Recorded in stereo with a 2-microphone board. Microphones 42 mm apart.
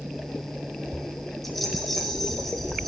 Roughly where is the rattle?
Centre.